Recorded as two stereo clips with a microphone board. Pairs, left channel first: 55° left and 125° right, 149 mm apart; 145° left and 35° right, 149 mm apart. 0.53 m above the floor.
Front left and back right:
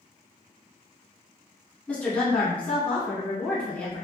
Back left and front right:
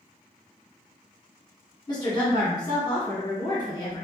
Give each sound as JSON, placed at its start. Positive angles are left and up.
{"t": 1.9, "sound": "a woman speaking", "azimuth_deg": 125, "distance_m": 1.1}